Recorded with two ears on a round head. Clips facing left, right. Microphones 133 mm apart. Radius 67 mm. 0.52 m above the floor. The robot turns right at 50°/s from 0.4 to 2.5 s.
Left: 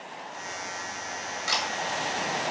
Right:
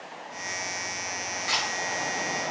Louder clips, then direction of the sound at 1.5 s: Left 1 dB; 75° left (ahead or behind).